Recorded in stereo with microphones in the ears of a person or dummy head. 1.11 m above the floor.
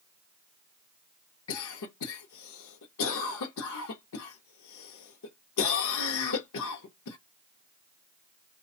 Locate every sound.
1.5 s a cough: 75° left (ahead or behind), 0.7 m